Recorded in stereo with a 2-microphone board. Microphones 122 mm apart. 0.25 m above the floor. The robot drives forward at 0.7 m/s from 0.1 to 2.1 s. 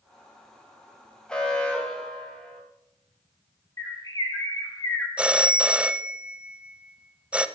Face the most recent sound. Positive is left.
turn(degrees=-10)  # may be behind; listen again after turning